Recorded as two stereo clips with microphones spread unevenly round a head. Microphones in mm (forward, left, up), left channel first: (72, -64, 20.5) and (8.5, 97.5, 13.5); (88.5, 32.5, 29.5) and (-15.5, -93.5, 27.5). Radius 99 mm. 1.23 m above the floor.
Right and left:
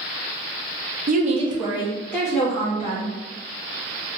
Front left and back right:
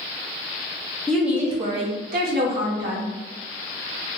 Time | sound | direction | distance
1.1 | a woman speaking | 135° left | 0.6 m